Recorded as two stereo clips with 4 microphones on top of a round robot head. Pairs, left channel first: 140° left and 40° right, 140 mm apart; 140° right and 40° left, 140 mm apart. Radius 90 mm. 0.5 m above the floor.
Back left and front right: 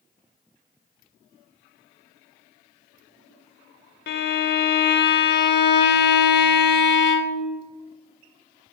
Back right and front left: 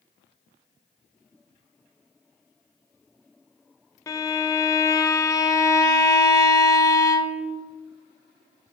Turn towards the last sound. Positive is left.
turn(degrees=150)